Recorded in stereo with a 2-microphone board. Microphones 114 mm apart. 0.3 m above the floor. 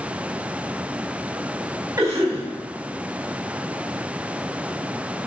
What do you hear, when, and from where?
2.0 s a cough: 30° right (ahead or behind), 2.5 m